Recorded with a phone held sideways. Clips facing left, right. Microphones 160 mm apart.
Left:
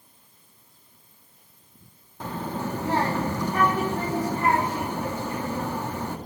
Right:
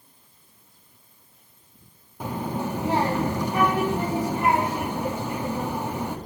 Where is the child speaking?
15° right (ahead or behind), 1.3 m.